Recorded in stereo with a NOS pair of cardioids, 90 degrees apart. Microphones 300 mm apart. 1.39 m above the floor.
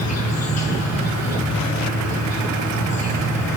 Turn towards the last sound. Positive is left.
turn(degrees=60)